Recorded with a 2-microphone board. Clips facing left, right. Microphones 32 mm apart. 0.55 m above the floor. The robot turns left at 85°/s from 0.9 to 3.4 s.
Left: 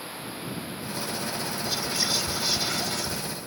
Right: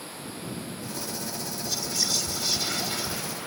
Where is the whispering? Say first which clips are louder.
Left 1 dB; 30° left (ahead or behind); by 3.2 s 15° right (ahead or behind).